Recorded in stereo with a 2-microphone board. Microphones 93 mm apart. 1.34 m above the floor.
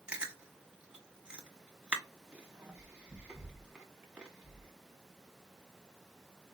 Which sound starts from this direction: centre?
Chewing, at 0.1 s.